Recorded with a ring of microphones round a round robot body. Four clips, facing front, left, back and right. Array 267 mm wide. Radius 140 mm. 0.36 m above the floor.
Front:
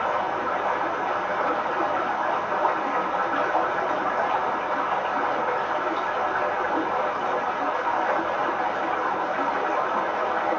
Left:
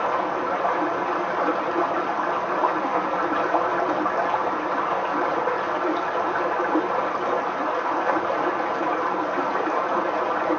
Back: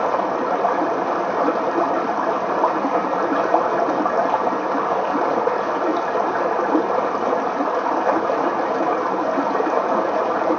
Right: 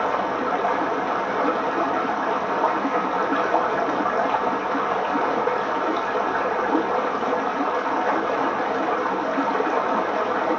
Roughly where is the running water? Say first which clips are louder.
Right 1 dB, back 5 dB; behind.